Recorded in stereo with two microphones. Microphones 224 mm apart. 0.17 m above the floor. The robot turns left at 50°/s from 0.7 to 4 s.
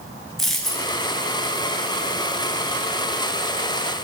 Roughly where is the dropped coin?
Centre.